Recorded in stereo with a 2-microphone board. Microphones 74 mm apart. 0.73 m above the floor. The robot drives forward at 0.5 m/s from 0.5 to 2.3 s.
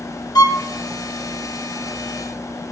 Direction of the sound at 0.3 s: 60° left (ahead or behind).